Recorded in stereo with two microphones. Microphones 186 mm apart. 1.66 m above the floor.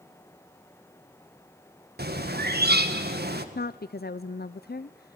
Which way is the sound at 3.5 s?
65° left (ahead or behind).